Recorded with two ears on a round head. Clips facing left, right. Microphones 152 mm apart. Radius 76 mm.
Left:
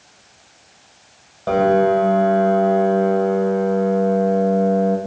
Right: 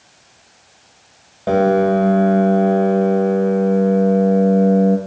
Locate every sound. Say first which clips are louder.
1.5 s a piano: right 1 dB; 20° right (ahead or behind), 1.2 m